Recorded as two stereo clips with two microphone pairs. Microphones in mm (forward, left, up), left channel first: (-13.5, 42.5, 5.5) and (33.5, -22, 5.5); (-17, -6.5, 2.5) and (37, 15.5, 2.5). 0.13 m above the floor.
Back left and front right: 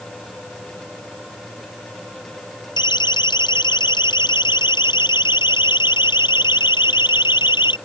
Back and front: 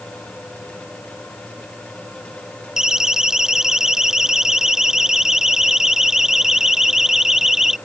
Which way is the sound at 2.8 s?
105° left.